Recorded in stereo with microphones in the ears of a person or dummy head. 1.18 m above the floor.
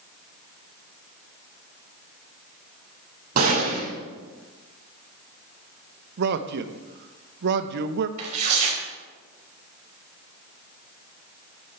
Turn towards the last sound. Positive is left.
turn(degrees=-40)  # may be behind; listen again after turning